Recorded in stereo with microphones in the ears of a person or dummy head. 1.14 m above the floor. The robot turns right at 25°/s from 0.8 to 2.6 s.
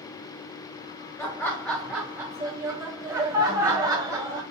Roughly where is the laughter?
Behind.